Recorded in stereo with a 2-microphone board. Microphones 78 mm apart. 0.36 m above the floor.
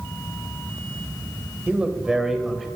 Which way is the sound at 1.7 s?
20° right (ahead or behind).